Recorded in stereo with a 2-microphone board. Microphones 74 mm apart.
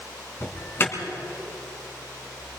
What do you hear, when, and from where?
0.4 s an alarm: 35° left (ahead or behind), 3 m